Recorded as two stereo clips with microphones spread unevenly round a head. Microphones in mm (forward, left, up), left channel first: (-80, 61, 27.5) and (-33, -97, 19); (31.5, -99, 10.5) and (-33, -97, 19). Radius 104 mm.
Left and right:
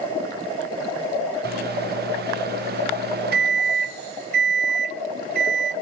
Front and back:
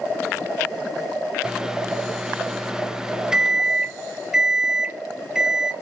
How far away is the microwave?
About 0.6 m.